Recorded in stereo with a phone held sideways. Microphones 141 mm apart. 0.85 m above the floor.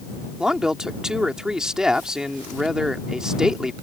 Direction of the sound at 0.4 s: 5° right (ahead or behind).